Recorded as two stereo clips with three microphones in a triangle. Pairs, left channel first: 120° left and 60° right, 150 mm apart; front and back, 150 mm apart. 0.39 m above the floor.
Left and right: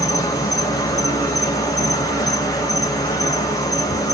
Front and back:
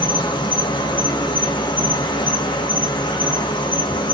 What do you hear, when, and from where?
0.0 s an insect: 55° left, 0.8 m